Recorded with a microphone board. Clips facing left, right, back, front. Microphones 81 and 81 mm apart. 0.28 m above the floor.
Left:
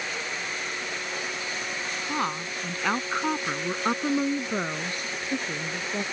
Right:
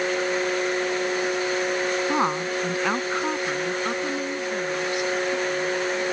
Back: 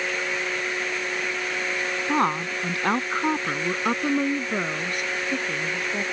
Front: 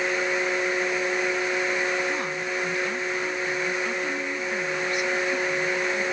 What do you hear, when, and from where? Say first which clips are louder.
2.1 s a woman speaking: right 6 dB, back 5 dB; 150° right; by 6.0 s 130° left